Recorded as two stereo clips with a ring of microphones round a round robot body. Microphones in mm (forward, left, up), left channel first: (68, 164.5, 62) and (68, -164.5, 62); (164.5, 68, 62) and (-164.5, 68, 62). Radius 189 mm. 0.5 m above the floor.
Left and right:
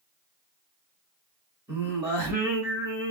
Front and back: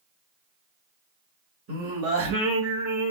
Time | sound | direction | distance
1.7 | singing | 170° right | 1.6 m